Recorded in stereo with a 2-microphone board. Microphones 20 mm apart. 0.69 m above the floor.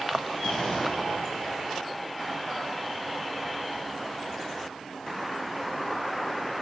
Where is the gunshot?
55° left (ahead or behind), 4 m.